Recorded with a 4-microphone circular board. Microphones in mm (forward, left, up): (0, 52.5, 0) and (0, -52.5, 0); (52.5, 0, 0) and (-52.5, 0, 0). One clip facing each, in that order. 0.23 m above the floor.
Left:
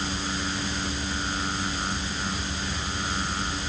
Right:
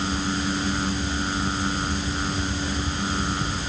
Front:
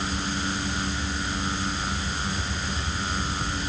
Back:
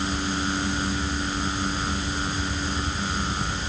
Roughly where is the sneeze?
I don't hear a sneeze.